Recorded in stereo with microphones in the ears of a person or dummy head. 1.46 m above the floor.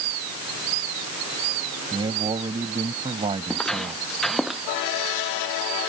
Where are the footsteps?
5° left (ahead or behind); by 4.6 s centre (ahead or behind).